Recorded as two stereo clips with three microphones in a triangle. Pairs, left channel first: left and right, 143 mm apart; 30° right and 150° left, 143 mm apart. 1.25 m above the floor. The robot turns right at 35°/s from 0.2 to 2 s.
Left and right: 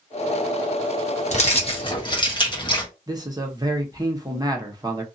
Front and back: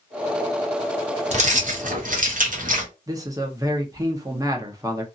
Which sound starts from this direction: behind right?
A man speaking, at 3.1 s.